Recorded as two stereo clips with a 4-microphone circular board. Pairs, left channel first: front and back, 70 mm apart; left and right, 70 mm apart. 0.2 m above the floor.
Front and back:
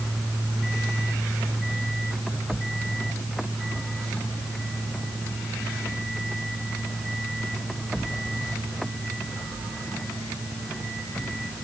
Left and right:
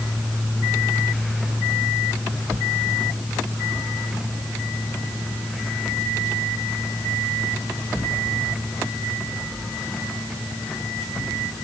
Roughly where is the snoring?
I don't hear snoring.